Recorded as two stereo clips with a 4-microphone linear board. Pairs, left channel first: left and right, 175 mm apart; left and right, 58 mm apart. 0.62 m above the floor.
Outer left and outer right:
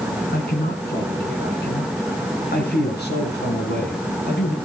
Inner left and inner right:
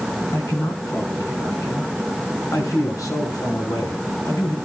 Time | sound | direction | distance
0.3 | a man speaking | 70° left (ahead or behind) | 5.5 m